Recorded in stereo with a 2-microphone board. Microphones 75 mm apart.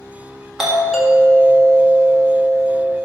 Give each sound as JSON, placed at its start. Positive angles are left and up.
{"t": 0.6, "sound": "a doorbell", "side_deg": -5, "distance_m": 1.8}